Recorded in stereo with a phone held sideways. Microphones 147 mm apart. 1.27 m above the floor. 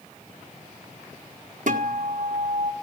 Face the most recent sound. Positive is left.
turn(degrees=-60)  # may be behind; listen again after turning